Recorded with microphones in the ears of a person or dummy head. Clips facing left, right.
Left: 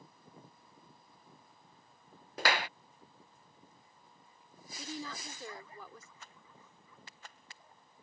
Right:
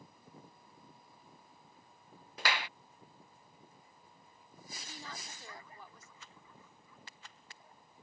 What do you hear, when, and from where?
2.4 s a clap: 45° left (ahead or behind)
4.8 s a woman speaking: 85° left
6.2 s a rattle: 50° left (ahead or behind)